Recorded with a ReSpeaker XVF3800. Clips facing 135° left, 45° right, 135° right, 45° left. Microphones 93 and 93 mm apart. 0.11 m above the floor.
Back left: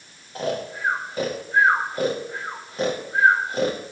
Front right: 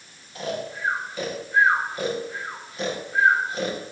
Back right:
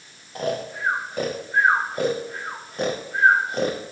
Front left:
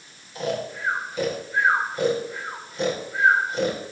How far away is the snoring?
About 4 m.